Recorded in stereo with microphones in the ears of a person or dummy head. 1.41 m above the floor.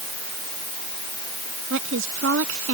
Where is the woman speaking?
70° right (ahead or behind).